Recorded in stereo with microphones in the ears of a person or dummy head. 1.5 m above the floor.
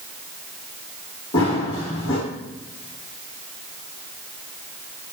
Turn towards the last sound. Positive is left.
turn(degrees=25)  # may be behind; listen again after turning